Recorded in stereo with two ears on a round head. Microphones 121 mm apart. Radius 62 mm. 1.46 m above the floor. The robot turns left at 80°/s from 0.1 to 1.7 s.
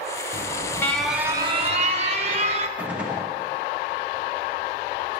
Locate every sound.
0.3 s an alarm: 55° left, 1.5 m; by 2.7 s 55° right, 1.5 m
2.8 s a gunshot: 10° right (ahead or behind), 2.5 m